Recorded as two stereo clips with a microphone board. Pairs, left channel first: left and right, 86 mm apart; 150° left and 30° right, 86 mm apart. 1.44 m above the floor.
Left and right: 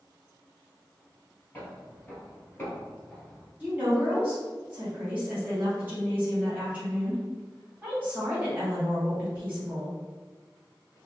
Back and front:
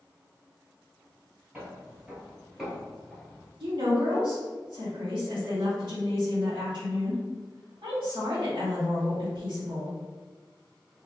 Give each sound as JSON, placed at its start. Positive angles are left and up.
{"t": 1.5, "sound": "footsteps", "azimuth_deg": 35, "distance_m": 2.0}
{"t": 3.6, "sound": "a woman speaking", "azimuth_deg": -20, "distance_m": 2.0}